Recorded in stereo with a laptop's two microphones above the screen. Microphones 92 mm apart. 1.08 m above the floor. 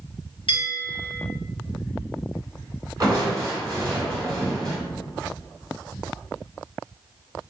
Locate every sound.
0.5 s a bell: 70° left (ahead or behind), 0.9 m
3.0 s crushing: 40° right (ahead or behind), 1.6 m